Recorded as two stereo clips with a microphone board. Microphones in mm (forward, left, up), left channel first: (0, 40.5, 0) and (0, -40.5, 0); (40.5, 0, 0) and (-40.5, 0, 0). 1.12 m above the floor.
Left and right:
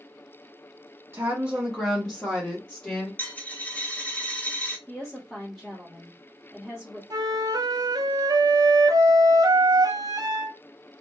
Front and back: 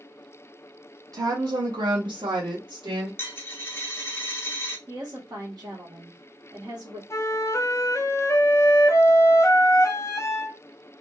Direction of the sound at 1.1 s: 150° right.